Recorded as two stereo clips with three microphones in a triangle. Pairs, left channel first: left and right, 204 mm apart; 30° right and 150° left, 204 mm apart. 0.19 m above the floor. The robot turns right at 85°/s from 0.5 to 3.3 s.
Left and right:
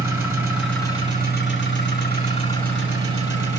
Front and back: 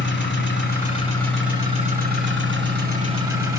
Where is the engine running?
15° right, 3 m; by 3.6 s 135° right, 3 m.